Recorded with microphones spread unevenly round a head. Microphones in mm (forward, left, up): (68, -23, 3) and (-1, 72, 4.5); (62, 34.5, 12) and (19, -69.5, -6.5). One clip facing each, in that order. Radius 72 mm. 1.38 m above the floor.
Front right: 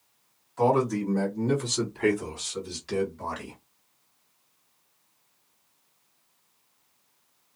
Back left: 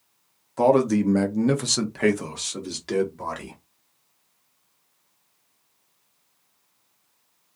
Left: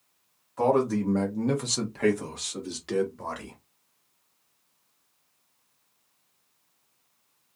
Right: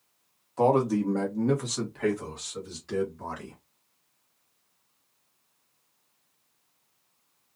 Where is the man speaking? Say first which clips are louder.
Back left 5 dB, right 1 dB; 175° left, 0.9 m; by 3.5 s 95° left, 1.6 m.